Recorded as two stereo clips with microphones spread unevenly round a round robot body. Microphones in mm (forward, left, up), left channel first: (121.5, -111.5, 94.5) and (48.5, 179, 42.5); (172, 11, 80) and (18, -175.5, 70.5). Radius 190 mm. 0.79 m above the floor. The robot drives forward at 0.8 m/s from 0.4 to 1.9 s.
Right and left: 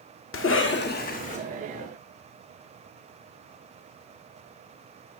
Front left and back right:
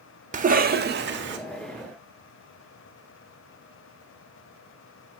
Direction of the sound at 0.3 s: 105° right.